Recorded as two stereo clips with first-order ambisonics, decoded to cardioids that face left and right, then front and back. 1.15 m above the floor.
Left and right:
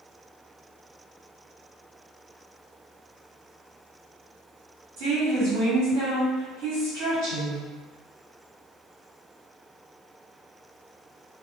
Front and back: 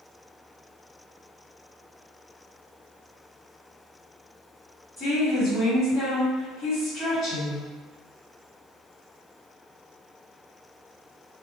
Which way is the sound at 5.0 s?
70° right.